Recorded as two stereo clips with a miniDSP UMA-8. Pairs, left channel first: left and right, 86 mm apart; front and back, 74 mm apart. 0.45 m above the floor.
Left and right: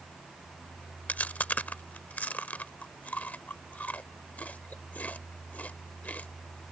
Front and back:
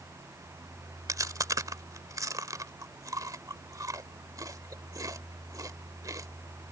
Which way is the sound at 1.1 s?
155° left.